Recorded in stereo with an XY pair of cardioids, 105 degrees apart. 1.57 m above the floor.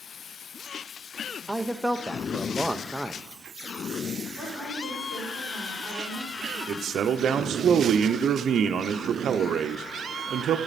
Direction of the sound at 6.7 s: 55° right.